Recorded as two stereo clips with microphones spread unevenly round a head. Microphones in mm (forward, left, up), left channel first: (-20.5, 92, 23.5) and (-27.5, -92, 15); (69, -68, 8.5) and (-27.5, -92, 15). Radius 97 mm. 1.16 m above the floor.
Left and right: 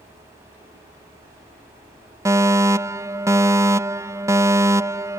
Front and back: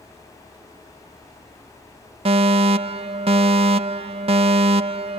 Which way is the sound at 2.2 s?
165° right.